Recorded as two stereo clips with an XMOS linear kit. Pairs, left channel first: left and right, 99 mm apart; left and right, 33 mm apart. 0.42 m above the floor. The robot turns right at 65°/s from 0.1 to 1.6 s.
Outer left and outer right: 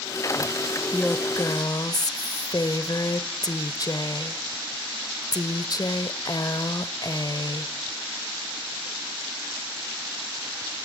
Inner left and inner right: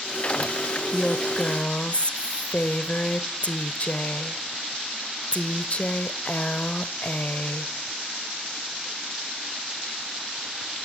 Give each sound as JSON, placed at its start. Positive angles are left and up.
{"t": 0.9, "sound": "a woman speaking", "azimuth_deg": 15, "distance_m": 1.3}